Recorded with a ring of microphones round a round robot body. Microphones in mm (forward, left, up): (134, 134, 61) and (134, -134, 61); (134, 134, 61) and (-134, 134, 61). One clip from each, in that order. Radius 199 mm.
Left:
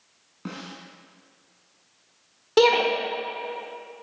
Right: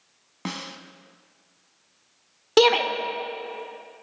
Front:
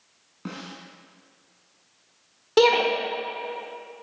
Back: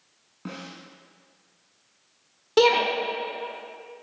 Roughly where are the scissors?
No scissors in this recording.